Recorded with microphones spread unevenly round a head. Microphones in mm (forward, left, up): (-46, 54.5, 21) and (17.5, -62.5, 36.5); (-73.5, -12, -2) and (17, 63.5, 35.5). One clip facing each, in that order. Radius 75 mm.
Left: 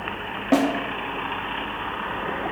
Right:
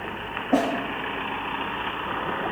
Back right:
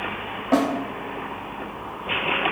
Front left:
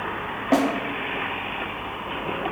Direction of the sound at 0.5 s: 110° left.